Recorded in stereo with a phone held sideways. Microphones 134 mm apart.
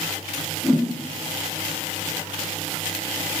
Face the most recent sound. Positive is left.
turn(degrees=0)  # may be behind; listen again after turning